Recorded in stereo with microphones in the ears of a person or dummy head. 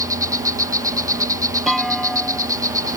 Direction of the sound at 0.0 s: 15° right (ahead or behind).